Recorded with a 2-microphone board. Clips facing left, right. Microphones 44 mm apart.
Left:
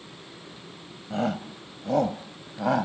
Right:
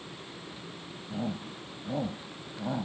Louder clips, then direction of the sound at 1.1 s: Left 7 dB; 75° left (ahead or behind).